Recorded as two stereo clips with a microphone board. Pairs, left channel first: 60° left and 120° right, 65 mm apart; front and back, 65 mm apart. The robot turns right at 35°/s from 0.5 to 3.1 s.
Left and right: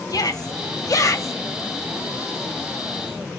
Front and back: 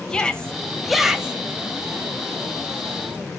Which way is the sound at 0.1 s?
75° left.